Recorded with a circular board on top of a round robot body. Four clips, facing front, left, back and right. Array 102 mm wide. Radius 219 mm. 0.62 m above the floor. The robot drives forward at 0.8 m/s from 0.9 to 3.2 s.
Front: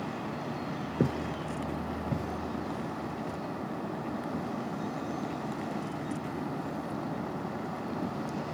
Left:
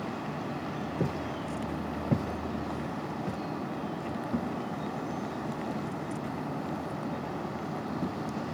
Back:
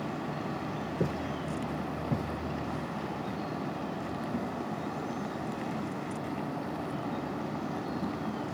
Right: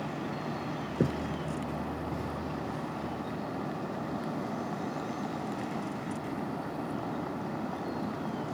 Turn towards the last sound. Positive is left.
turn(degrees=65)